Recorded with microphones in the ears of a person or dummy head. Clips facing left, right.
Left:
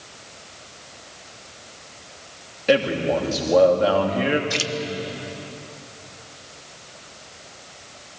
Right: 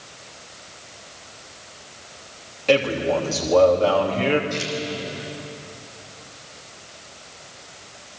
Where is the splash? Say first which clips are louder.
Even; 85° left, 1.7 m.